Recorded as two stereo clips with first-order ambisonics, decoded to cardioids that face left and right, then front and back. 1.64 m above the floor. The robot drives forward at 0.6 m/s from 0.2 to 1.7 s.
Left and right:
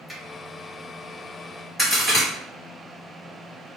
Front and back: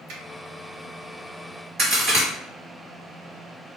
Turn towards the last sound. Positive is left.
turn(degrees=175)